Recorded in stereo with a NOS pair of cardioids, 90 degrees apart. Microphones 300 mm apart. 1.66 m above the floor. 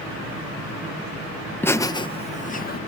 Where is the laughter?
5° left; by 2.8 s 30° left.